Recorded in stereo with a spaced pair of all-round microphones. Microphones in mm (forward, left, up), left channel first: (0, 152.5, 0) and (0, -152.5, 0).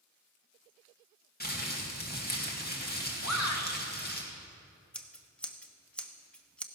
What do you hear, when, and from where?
1.4 s crumpling: 30° left (ahead or behind), 2 m
3.2 s a shout: 60° left (ahead or behind), 1.9 m
4.9 s scissors: 5° left (ahead or behind), 1.0 m